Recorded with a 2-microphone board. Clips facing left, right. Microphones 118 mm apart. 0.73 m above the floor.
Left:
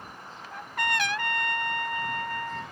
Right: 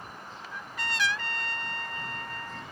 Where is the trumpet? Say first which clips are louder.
Left 7 dB; 60° left (ahead or behind).